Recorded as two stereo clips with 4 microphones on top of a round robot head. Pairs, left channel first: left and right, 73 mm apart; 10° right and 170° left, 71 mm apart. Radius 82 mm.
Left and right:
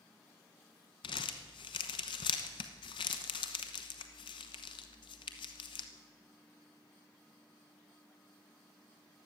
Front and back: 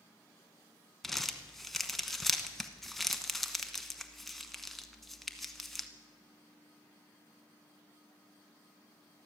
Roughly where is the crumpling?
Left.